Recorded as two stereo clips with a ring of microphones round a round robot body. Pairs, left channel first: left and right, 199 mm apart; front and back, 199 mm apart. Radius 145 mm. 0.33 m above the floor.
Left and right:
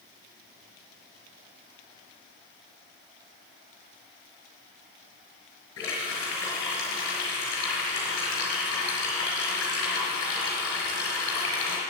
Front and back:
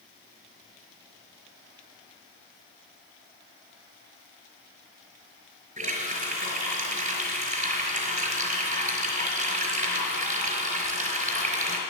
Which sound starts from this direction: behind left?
A running tap, at 5.8 s.